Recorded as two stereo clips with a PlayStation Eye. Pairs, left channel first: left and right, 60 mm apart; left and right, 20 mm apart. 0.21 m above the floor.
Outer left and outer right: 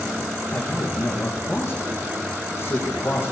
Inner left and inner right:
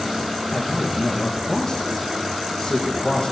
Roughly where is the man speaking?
Left.